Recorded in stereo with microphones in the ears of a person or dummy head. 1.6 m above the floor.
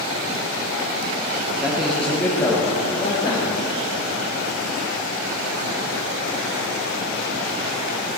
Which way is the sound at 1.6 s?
5° right (ahead or behind).